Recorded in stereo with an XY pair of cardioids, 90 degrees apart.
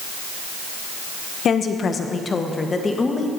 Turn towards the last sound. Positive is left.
turn(degrees=30)